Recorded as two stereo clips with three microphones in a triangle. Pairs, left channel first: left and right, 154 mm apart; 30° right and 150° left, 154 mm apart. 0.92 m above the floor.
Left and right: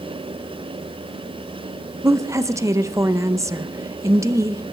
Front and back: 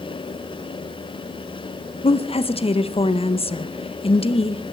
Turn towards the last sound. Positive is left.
turn(degrees=-30)